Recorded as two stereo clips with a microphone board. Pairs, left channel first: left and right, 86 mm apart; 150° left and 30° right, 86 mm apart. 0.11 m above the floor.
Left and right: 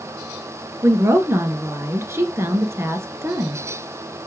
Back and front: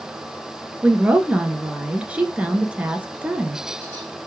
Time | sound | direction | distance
0.8 | a woman speaking | 90° right | 1.2 m